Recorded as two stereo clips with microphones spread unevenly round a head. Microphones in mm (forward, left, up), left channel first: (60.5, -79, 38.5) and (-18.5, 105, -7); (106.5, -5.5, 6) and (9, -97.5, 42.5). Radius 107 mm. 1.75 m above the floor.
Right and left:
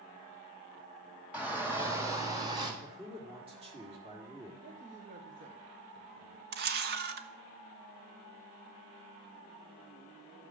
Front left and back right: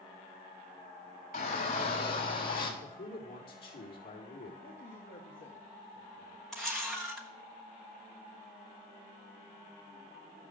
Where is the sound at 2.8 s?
50° left, 4 m.